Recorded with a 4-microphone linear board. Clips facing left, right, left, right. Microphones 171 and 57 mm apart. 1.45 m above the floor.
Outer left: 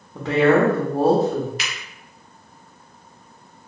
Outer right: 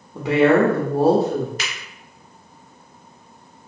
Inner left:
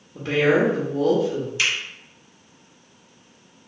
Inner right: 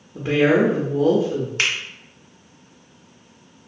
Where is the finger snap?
45° right (ahead or behind), 0.8 m.